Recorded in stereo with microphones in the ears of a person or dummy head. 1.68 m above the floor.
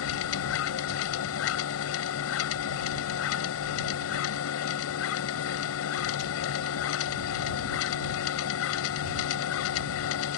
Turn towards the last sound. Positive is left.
turn(degrees=80)